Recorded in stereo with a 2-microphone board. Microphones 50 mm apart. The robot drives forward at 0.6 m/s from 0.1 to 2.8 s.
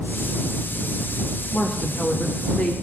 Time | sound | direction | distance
1.5 | a woman speaking | 25° left (ahead or behind) | 1.9 m